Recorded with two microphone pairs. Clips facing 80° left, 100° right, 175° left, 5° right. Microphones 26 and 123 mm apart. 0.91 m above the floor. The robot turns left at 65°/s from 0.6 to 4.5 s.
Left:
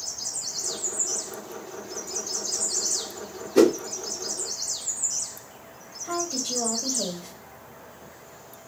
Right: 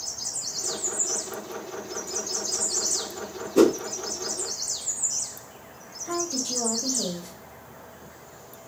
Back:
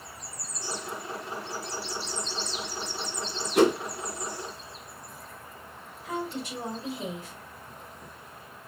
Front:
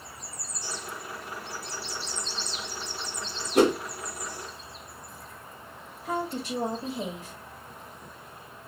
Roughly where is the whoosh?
Ahead left.